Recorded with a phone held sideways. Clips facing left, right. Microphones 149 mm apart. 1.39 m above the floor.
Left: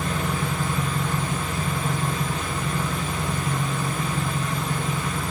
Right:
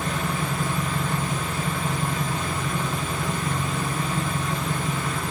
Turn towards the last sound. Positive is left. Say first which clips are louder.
# left 1 dB
turn(degrees=-25)  # may be behind; listen again after turning